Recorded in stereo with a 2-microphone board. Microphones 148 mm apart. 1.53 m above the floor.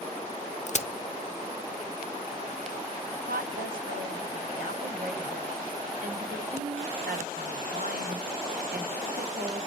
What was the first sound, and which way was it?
A crack, 50° left (ahead or behind).